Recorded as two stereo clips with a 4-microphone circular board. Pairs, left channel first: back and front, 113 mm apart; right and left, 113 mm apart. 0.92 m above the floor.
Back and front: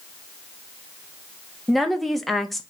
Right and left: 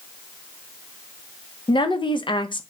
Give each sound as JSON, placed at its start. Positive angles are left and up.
{"t": 1.7, "sound": "a woman speaking", "azimuth_deg": -90, "distance_m": 0.6}